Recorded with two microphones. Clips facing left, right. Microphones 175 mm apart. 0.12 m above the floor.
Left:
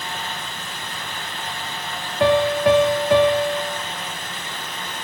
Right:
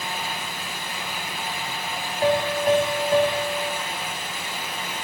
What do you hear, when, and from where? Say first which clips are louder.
2.2 s a piano: left 5 dB; 80° left, 4.5 m